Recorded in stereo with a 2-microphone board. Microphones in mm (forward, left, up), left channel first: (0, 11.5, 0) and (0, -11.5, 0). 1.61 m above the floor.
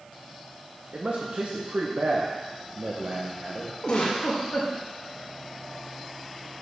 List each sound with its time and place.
0.9 s a man speaking: 80° right, 1.3 m
3.8 s a giggle: 50° left (ahead or behind), 2.5 m